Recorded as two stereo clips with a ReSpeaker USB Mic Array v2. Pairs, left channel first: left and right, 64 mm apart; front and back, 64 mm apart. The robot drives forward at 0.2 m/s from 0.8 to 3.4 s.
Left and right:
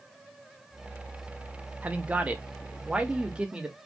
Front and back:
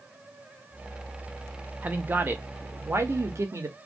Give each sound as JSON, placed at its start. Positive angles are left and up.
{"t": 1.8, "sound": "a man speaking", "azimuth_deg": -135, "distance_m": 0.6}